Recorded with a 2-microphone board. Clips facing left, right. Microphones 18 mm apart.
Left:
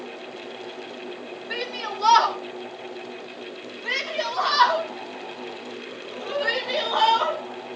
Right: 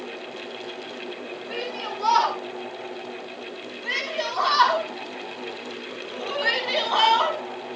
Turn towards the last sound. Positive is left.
turn(degrees=-40)  # may be behind; listen again after turning